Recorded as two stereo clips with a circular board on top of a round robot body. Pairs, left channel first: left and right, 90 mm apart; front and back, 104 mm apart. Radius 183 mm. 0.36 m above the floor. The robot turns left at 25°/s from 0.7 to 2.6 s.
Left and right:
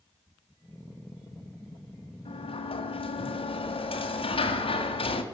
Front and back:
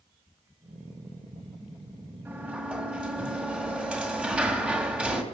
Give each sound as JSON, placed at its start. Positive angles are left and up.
{"t": 2.2, "sound": "a sliding door", "azimuth_deg": 110, "distance_m": 2.0}